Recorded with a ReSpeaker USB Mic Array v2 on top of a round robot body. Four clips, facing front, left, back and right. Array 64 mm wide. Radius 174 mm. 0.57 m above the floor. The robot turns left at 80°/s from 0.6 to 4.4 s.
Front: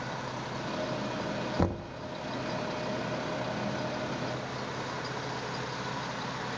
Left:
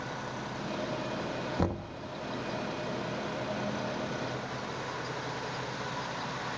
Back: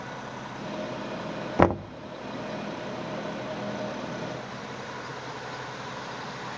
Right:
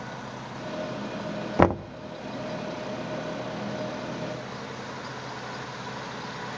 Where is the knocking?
135° right, 0.6 m; by 1.9 s 160° right, 0.6 m.